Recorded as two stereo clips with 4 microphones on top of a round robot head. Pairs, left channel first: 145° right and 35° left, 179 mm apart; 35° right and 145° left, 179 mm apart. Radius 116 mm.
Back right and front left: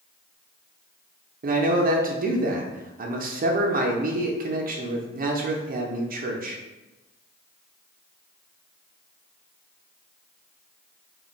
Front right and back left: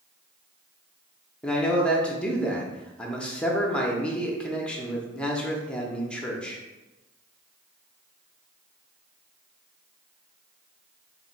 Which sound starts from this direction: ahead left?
A man speaking, at 1.4 s.